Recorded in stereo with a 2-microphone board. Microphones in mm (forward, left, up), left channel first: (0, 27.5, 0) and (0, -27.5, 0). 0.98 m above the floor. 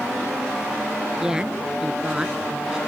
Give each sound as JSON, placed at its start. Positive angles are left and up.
{"t": 1.2, "sound": "a woman speaking", "side_deg": -15}